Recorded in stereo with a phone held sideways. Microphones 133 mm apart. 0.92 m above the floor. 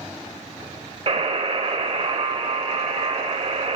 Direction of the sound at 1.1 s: 50° right (ahead or behind).